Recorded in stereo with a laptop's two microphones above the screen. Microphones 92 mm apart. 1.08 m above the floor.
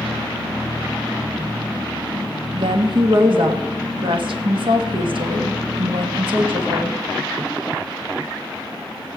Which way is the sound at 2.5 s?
65° right (ahead or behind).